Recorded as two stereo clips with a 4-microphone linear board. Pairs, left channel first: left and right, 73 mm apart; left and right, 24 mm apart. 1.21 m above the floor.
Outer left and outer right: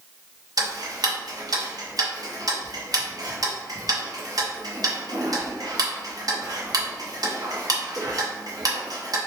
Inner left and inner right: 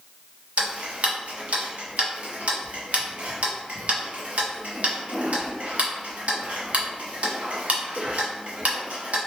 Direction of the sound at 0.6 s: 60° right (ahead or behind).